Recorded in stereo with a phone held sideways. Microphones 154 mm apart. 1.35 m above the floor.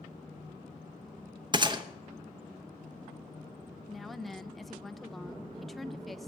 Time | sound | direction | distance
1.5 | a gunshot | 30° right (ahead or behind) | 0.8 m
3.9 | a woman speaking | centre (ahead or behind) | 0.6 m